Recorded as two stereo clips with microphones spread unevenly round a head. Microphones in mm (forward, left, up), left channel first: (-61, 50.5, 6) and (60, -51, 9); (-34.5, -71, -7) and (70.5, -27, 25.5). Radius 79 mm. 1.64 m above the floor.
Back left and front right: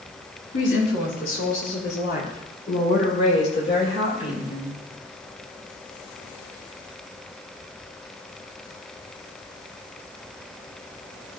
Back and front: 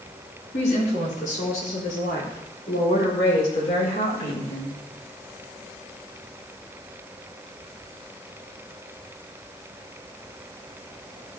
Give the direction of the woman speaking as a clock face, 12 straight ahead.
7 o'clock.